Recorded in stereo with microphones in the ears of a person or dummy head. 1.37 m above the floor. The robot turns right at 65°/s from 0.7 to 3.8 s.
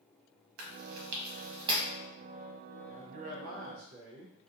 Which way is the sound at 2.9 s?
160° right.